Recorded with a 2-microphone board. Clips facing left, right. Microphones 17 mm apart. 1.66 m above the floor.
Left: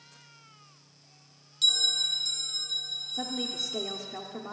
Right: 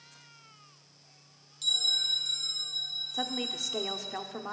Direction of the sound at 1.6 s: 30° left (ahead or behind).